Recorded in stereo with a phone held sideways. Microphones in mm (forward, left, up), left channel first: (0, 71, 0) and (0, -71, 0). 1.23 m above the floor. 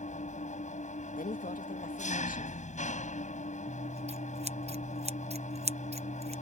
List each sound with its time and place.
0.0 s an engine running: 60° left (ahead or behind)
1.2 s a woman speaking: 75° left (ahead or behind)
3.7 s scissors: 50° right (ahead or behind)